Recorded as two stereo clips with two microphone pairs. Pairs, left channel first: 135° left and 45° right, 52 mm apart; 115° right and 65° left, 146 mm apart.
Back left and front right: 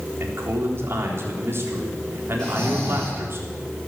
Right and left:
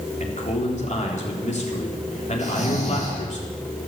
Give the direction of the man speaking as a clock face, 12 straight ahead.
3 o'clock.